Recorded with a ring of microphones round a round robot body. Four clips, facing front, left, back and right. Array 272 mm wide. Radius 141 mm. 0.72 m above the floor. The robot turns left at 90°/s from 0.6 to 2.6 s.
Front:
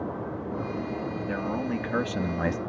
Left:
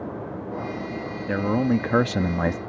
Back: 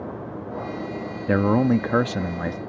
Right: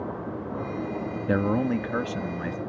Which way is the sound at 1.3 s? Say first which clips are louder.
Left 2 dB, back 13 dB; 165° right.